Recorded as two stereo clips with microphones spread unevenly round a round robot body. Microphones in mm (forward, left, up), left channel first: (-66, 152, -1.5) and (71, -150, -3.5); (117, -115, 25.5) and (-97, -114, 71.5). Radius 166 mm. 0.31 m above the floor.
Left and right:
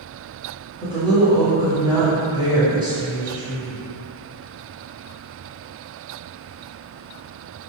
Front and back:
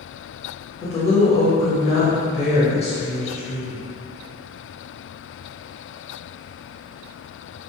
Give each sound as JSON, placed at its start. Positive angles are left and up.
{"t": 0.8, "sound": "a woman speaking", "azimuth_deg": 5, "distance_m": 1.3}